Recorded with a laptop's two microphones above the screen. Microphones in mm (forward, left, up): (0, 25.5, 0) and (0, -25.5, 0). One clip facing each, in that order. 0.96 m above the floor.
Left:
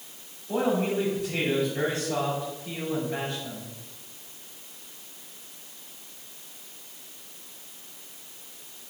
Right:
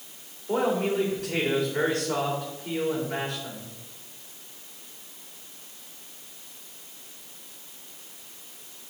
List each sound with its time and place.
0.5 s a man speaking: 70° right (ahead or behind), 3.5 m